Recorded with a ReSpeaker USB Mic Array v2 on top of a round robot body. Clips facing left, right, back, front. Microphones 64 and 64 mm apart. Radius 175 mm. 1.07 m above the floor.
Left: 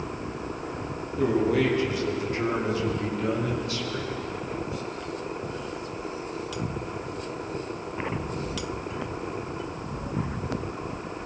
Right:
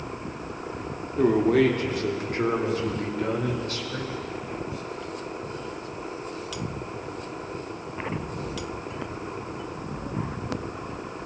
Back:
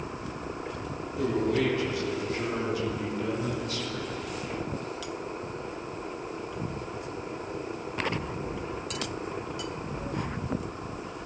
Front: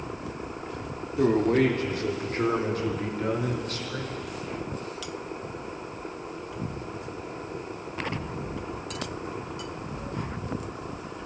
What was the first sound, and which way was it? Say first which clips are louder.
A man speaking: right 3 dB, front 5 dB; 50° right.